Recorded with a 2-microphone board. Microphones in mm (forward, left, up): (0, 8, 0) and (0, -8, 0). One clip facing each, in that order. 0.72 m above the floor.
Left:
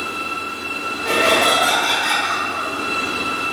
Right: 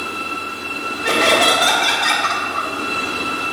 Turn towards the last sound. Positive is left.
turn(degrees=-70)  # may be behind; listen again after turning